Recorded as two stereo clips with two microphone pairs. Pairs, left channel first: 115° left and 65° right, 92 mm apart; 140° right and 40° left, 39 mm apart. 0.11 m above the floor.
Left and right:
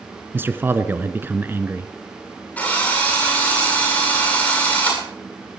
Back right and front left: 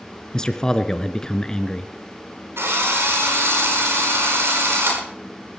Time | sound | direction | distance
0.3 | a man speaking | 90° right | 1.1 m
2.6 | a drill | 45° left | 9 m